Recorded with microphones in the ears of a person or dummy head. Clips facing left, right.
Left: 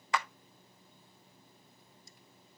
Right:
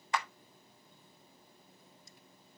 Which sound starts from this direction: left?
A clap, at 0.1 s.